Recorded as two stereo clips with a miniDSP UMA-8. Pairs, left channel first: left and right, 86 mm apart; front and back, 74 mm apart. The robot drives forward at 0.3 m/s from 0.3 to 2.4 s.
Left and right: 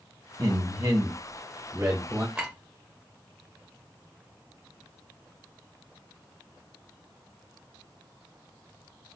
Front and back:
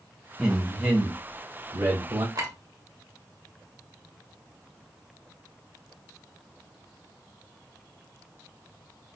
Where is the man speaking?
105° right, 1.1 m; by 2.2 s 135° right, 1.3 m.